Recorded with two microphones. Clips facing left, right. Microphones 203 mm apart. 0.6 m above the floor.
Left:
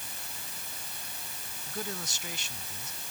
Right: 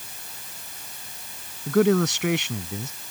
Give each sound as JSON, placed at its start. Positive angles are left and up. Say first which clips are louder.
{"t": 1.7, "sound": "a man speaking", "louder": "right 21 dB", "side_deg": -75}